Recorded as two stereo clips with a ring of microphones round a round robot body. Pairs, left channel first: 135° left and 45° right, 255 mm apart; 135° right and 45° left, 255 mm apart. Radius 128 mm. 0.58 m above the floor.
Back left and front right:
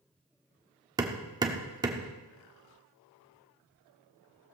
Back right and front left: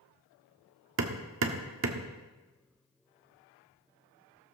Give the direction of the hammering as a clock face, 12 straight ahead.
11 o'clock.